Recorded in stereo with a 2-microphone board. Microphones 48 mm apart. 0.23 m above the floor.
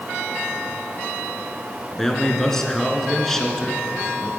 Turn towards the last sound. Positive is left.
turn(degrees=10)  # may be behind; listen again after turning